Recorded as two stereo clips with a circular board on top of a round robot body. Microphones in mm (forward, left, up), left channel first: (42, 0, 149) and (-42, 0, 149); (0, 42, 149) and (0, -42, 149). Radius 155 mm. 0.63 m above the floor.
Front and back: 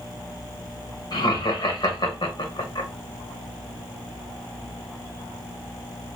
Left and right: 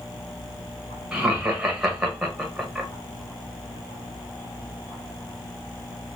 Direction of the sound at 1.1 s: 5° right.